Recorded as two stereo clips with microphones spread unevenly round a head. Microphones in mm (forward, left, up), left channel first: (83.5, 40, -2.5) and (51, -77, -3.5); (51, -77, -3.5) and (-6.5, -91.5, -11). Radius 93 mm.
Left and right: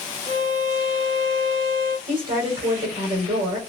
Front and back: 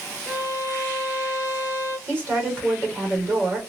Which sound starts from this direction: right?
A violin, at 0.3 s.